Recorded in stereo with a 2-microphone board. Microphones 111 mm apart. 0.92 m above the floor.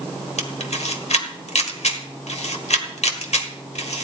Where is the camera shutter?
80° left, 1.5 m.